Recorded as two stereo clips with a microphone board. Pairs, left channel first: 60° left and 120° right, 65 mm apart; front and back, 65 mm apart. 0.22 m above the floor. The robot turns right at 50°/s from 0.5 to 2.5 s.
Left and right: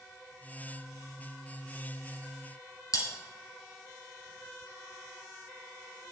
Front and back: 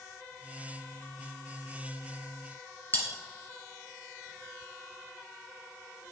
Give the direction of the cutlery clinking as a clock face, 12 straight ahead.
10 o'clock.